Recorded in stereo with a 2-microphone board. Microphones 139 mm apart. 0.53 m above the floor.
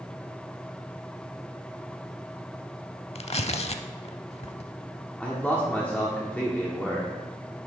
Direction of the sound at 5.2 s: 10° left (ahead or behind).